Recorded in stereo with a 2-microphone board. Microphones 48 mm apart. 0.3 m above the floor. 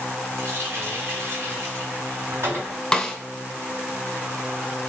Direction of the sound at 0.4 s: 55° right (ahead or behind).